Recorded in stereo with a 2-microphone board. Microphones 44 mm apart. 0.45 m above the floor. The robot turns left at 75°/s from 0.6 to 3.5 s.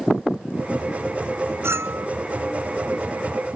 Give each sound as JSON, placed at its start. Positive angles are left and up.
{"t": 1.6, "sound": "a clink", "azimuth_deg": -70}